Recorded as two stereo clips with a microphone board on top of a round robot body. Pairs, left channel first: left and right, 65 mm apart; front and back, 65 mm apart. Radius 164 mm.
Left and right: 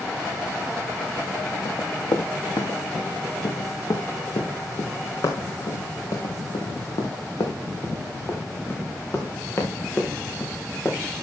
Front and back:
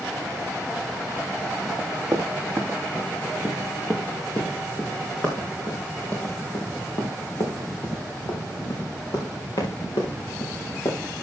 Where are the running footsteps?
105° left, 3.5 m; by 11.2 s 25° left, 4.5 m.